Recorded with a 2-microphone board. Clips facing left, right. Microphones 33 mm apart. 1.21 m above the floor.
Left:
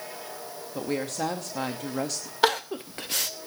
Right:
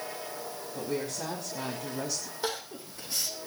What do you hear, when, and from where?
0.8 s a woman speaking: 60° left (ahead or behind), 2.5 m
2.4 s crying: 65° left (ahead or behind), 0.9 m